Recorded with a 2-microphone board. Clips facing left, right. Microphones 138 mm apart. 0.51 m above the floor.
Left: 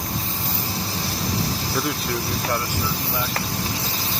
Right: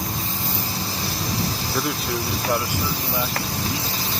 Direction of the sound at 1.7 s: Centre (ahead or behind).